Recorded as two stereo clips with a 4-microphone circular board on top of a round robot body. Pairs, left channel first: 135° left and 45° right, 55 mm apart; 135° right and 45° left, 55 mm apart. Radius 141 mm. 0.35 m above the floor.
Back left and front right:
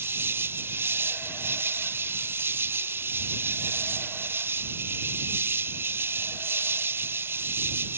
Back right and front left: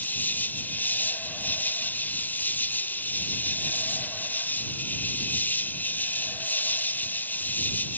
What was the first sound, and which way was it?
An insect, 85° right.